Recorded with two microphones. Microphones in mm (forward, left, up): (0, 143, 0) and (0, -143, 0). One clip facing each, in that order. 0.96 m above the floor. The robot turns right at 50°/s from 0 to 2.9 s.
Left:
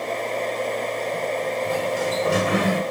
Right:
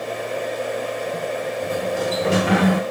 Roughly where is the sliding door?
Behind right.